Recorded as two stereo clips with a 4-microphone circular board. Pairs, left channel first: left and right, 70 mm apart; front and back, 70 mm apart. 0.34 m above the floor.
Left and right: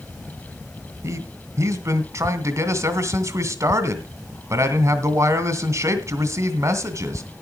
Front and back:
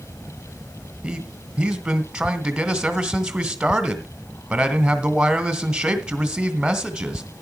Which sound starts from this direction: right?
A man speaking, at 1.0 s.